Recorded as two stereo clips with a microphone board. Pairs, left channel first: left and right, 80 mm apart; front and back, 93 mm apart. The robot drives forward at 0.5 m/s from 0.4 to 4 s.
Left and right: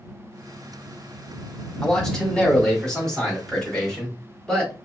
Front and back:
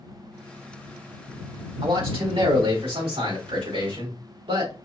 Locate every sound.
1.8 s a man speaking: 170° left, 3 m